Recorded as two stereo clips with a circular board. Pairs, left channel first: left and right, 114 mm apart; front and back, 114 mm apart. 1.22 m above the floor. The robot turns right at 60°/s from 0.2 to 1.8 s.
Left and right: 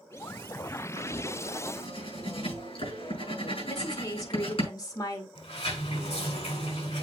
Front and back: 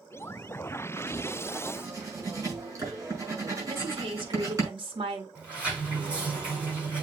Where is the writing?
70° left, 5 m; by 4.7 s 120° left, 5 m.